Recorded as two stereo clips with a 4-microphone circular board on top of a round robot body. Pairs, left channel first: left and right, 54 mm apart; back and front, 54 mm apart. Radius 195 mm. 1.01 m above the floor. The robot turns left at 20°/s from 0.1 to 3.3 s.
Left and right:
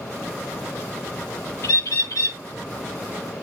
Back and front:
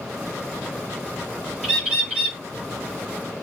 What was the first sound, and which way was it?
A bird, 90° left.